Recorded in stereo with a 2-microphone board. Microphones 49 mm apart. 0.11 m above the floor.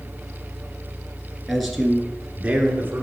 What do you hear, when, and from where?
1.5 s a man speaking: 5° left (ahead or behind), 1.2 m; by 3.0 s 40° right (ahead or behind), 1.4 m